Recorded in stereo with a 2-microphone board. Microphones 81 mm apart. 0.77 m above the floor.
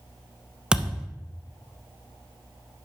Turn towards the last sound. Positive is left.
turn(degrees=-10)  # may be behind; listen again after turning